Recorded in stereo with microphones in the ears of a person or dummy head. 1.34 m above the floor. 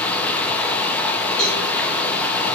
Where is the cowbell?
25° left (ahead or behind), 1.6 m.